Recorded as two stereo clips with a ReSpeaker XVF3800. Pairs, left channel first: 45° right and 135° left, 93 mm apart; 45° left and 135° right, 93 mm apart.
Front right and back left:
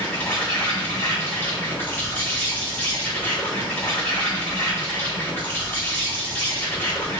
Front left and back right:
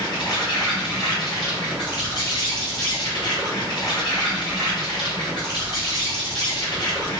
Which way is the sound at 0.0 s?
20° left.